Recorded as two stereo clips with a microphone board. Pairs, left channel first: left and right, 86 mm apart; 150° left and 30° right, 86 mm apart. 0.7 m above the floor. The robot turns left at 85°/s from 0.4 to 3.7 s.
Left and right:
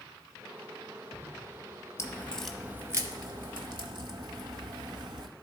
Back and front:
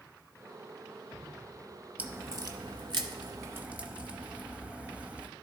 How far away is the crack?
About 0.9 m.